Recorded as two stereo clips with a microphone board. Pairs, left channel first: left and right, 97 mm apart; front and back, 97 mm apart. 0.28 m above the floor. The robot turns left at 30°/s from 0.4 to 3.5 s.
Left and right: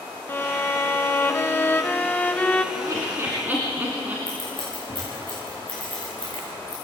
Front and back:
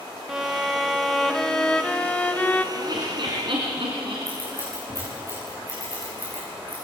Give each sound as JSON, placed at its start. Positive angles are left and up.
{"t": 0.3, "sound": "a violin", "azimuth_deg": 100, "distance_m": 0.7}
{"t": 2.8, "sound": "laughter", "azimuth_deg": -135, "distance_m": 3.0}
{"t": 4.3, "sound": "scissors", "azimuth_deg": -125, "distance_m": 9.5}